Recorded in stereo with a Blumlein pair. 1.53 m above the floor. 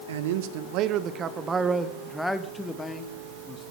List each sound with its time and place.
0.1 s a man speaking: 60° right, 1.4 m; by 3.7 s 20° left, 2.5 m